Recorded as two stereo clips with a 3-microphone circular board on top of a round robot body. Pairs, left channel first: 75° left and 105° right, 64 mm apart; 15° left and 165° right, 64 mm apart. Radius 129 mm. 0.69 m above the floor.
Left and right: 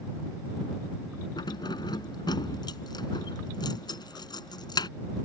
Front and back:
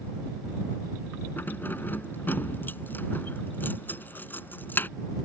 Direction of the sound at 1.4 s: 80° left.